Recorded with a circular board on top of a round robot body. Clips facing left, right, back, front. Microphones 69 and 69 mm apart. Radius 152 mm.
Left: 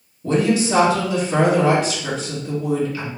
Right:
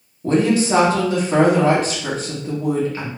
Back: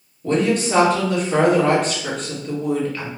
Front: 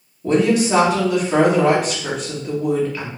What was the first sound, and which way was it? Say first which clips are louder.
A woman speaking: right 2 dB, front 3 dB; 80° right.